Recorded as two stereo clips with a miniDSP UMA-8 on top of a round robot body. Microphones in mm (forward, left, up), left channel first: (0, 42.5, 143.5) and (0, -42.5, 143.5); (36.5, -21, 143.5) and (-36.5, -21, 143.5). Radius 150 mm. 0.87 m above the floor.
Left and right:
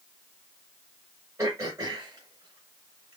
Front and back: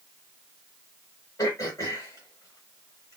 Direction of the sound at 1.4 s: 35° right.